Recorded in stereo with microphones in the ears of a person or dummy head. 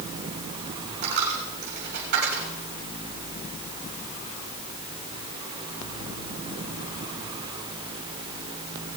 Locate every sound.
1.0 s a dropped coin: 50° right (ahead or behind), 3 m